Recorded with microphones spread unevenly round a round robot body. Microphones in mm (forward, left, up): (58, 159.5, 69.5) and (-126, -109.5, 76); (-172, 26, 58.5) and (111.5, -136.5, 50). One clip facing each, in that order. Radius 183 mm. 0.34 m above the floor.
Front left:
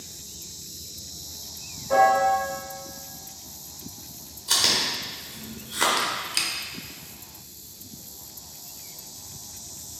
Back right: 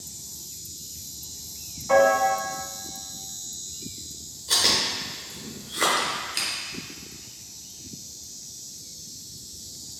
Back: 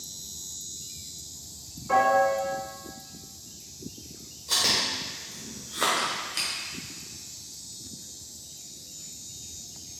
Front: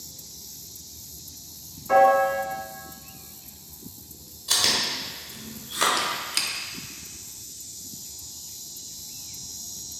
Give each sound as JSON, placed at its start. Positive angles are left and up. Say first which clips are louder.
{"t": 1.9, "sound": "a piano", "louder": "back right 2 dB, front 4 dB", "azimuth_deg": -120, "distance_m": 1.4}
{"t": 4.5, "sound": "chewing", "louder": "back right 1 dB, front 1 dB", "azimuth_deg": 10, "distance_m": 1.2}
{"t": 6.0, "sound": "a squeak", "louder": "even, front 1 dB", "azimuth_deg": 0, "distance_m": 0.6}